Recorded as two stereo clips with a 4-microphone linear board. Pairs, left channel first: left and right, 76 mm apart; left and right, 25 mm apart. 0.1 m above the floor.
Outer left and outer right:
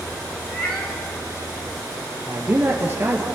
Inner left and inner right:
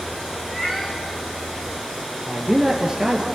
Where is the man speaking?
25° right (ahead or behind), 2.5 m.